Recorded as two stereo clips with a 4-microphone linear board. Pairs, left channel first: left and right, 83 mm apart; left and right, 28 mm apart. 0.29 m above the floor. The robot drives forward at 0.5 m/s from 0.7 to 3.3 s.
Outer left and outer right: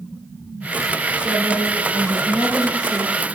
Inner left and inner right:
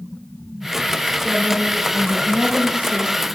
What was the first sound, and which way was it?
A woman speaking, 65° right (ahead or behind).